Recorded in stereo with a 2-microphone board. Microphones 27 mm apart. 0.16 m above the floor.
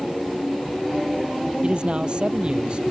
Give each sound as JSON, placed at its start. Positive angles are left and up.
{"t": 1.6, "sound": "a man speaking", "side_deg": -45}